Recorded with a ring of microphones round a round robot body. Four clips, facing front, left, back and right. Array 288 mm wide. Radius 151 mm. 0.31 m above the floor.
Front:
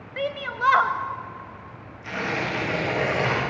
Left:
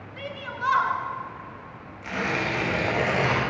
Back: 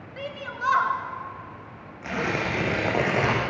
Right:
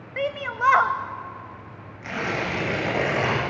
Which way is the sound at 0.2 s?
60° right.